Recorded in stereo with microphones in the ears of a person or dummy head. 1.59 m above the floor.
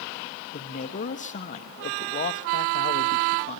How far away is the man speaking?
About 1.2 m.